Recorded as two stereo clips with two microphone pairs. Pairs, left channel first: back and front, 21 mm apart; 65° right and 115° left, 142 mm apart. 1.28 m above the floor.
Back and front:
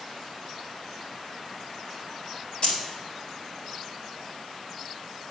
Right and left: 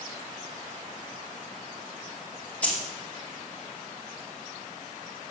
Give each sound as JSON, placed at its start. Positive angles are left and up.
{"t": 2.6, "sound": "keys jangling", "azimuth_deg": -145, "distance_m": 2.5}